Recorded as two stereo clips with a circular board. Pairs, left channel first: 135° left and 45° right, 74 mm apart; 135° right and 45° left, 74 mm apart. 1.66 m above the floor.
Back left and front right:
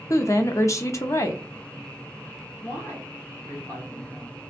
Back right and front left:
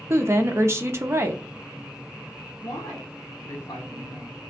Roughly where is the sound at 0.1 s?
Left.